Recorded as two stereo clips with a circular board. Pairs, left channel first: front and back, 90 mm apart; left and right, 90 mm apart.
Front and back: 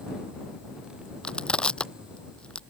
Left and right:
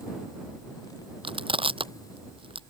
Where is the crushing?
80° right.